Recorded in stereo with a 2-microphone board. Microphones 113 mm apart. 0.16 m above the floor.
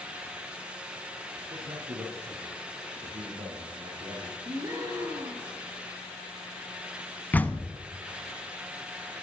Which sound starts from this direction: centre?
A door slam, at 7.3 s.